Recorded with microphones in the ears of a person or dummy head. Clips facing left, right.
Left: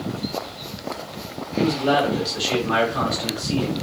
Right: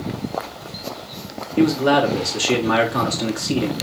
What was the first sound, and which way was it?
A man speaking, 70° right (ahead or behind).